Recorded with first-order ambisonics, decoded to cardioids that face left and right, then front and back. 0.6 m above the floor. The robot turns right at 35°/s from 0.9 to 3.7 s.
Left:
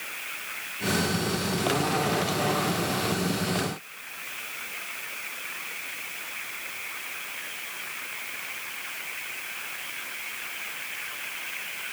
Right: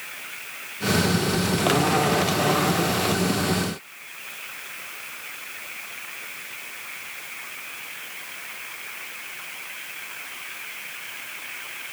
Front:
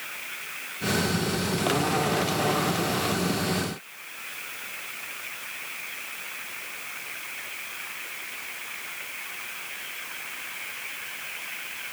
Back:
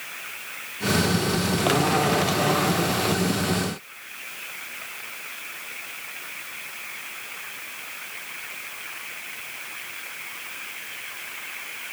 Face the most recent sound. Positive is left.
No sound to turn to.